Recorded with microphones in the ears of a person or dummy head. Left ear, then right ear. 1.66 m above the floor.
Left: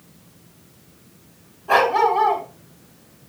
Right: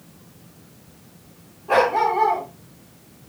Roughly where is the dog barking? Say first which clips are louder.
Left 2 dB; left.